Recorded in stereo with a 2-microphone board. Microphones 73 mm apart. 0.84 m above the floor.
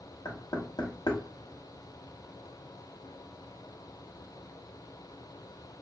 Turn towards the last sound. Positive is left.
turn(degrees=70)  # may be behind; listen again after turning